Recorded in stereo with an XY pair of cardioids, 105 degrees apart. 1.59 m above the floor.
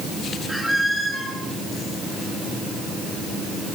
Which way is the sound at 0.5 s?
Straight ahead.